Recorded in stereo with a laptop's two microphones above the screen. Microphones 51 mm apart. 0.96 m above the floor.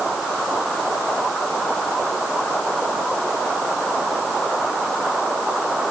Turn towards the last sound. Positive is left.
No sound to turn to.